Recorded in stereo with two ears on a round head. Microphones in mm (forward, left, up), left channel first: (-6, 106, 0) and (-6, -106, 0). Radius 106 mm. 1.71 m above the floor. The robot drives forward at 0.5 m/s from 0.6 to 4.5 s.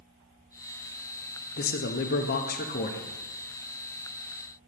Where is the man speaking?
40° left (ahead or behind), 0.6 m; by 3.1 s 30° left (ahead or behind), 0.8 m.